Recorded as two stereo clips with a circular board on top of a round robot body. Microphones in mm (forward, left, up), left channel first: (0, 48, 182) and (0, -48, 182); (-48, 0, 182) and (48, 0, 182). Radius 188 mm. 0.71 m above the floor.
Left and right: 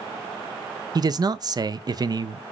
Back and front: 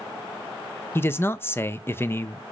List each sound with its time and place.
0.9 s a man speaking: 120° right, 0.6 m